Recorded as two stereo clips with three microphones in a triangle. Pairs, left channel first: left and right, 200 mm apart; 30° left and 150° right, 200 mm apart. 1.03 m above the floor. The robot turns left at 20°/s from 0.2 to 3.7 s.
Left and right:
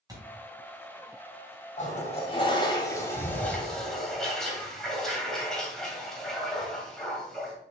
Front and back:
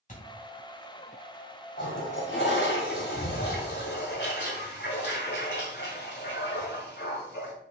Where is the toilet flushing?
40° left, 2 m; by 7.5 s 5° left, 2 m.